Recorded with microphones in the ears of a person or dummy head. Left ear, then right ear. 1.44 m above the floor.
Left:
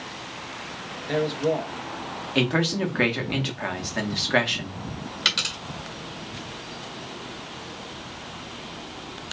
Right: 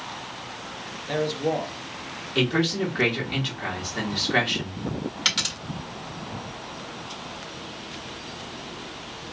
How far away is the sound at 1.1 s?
About 1.0 m.